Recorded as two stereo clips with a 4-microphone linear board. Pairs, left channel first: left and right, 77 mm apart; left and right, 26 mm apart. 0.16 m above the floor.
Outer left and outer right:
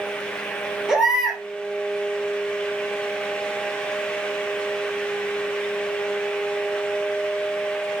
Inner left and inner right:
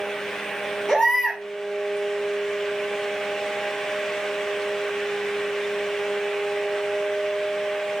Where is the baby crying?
5° right (ahead or behind), 2.5 m.